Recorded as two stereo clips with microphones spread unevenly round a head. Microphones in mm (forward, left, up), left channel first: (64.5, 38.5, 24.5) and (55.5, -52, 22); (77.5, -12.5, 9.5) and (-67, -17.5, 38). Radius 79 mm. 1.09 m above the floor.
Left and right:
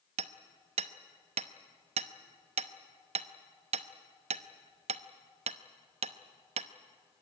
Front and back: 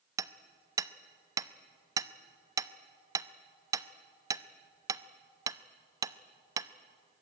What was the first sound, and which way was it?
Hammering, 110° right.